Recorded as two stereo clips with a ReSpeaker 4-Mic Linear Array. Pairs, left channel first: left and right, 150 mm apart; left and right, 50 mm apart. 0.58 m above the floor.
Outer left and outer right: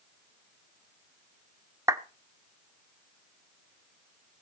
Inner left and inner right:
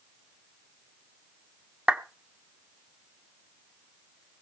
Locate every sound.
1.9 s a clap: 20° right (ahead or behind), 1.4 m